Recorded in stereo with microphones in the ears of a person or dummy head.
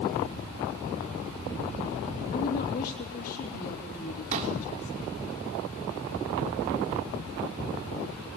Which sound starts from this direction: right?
A pop, at 4.3 s.